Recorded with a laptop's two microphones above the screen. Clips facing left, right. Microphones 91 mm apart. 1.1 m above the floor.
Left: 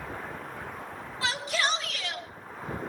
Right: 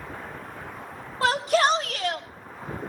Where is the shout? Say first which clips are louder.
Right 9 dB; 50° right (ahead or behind), 2.0 m.